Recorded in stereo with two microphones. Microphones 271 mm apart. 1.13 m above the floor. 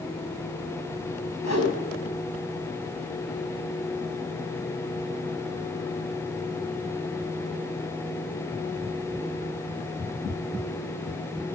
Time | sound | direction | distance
1.4 | a whoosh | 75° left (ahead or behind) | 5.5 m